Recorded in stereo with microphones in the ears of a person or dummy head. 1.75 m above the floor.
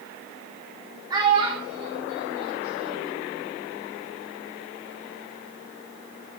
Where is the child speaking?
10° right (ahead or behind), 3.5 m; by 3.2 s 25° right (ahead or behind), 4.5 m.